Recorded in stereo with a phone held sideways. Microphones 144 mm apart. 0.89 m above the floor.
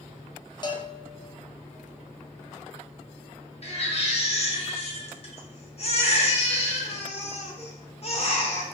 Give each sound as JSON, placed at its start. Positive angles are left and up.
{"t": 0.6, "sound": "a bell", "side_deg": 30, "distance_m": 0.5}
{"t": 3.6, "sound": "a baby crying", "side_deg": 50, "distance_m": 0.6}